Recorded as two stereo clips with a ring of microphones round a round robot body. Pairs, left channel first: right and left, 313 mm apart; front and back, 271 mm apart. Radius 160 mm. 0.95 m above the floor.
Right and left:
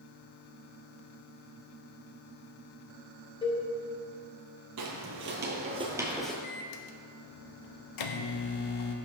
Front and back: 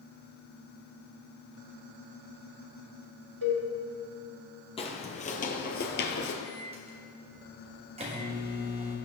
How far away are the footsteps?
About 1.4 m.